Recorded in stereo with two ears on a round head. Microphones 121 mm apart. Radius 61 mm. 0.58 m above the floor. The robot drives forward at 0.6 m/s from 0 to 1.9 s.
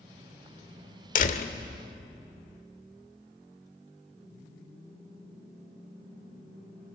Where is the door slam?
65° left (ahead or behind), 1.2 m; by 1.6 s 60° left (ahead or behind), 1.3 m.